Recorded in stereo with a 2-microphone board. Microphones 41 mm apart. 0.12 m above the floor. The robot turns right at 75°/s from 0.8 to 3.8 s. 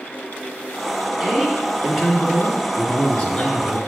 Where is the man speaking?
75° right, 1.6 m; by 3.8 s 115° left, 1.6 m.